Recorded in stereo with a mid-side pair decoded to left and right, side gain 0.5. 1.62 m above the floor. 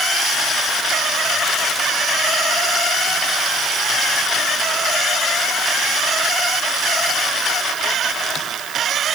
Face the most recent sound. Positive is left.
No sound to turn to.